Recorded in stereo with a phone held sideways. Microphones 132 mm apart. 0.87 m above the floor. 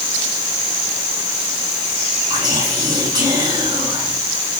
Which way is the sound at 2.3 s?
35° right (ahead or behind).